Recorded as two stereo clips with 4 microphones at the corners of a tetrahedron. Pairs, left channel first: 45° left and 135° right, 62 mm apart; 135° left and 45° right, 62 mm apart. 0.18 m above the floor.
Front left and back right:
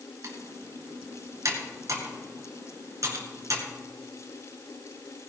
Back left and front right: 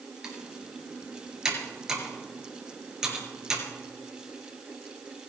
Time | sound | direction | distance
0.2 | typing on a keyboard | 125° right | 3 m